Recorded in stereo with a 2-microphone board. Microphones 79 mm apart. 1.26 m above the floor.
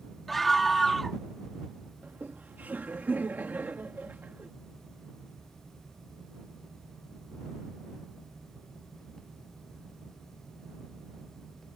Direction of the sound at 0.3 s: Centre (ahead or behind).